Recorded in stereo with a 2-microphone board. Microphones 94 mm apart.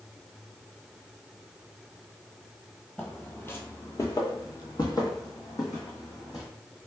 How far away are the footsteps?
About 0.9 m.